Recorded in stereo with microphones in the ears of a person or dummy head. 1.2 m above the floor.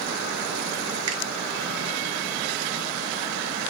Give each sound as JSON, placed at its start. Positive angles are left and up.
{"t": 1.1, "sound": "a finger snap", "side_deg": -75, "distance_m": 0.8}